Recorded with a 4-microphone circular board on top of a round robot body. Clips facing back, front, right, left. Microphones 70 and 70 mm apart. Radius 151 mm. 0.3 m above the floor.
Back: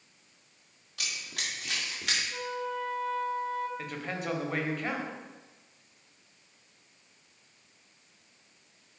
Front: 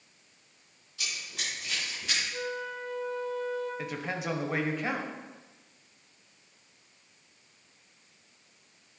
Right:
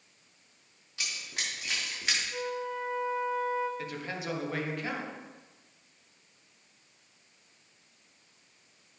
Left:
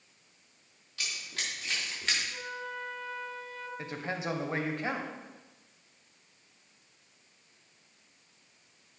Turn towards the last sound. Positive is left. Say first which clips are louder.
# front 2 dB, left 1 dB
turn(degrees=75)